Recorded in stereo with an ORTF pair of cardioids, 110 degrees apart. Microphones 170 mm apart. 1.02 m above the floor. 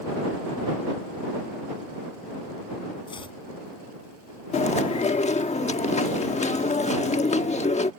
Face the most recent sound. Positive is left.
turn(degrees=45)